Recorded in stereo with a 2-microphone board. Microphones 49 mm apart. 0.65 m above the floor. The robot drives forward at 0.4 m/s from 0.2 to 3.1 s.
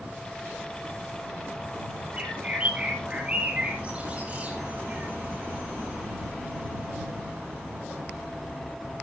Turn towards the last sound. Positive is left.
turn(degrees=-25)  # may be behind; listen again after turning